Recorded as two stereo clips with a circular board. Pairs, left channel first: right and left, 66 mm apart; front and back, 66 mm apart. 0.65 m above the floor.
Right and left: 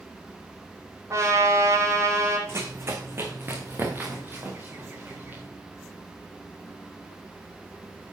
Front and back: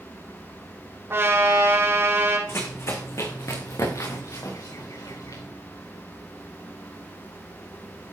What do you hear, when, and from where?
1.1 s a trumpet: 130° left, 5 m
2.5 s running footsteps: 45° left, 2.5 m; by 5.4 s 30° left, 5 m